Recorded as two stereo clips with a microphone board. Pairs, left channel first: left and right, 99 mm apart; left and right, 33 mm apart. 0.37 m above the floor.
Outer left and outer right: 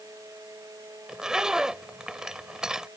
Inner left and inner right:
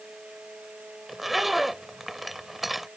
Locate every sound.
1.1 s a zipper: 5° right (ahead or behind)